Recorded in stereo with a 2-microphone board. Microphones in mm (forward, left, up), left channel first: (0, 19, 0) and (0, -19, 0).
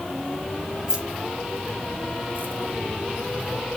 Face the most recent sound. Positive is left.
turn(degrees=-50)  # may be behind; listen again after turning